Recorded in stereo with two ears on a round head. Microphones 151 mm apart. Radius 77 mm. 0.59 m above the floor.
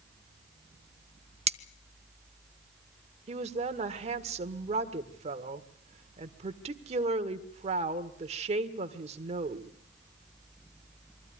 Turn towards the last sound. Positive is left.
turn(degrees=-40)  # may be behind; listen again after turning